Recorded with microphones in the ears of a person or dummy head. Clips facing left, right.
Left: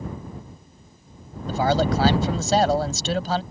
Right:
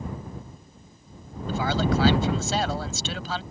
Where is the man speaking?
40° left (ahead or behind).